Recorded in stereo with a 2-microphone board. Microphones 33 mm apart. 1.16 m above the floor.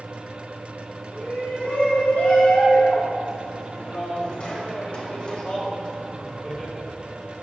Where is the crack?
No crack in this recording.